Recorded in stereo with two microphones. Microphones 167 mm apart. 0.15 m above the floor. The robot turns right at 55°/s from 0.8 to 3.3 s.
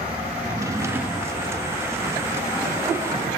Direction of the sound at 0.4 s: 25° right.